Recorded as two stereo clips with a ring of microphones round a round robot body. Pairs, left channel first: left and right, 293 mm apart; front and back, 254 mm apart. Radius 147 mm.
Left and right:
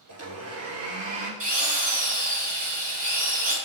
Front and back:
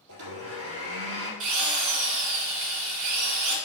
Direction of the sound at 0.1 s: 130° right.